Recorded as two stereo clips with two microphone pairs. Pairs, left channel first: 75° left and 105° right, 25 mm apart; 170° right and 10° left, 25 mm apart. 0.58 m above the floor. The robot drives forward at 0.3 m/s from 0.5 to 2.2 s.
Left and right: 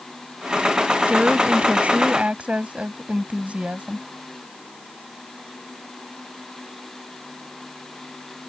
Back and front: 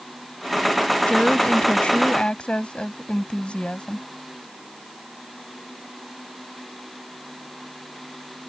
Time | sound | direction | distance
1.1 | a woman speaking | 125° right | ?